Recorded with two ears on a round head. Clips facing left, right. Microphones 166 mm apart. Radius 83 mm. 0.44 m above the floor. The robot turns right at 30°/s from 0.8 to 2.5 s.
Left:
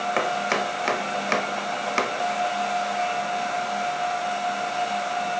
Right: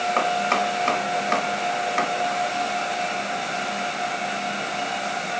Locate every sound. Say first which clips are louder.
0.2 s chopping: right 2 dB; 15° left (ahead or behind), 1.1 m; by 2.1 s 50° left (ahead or behind), 1.1 m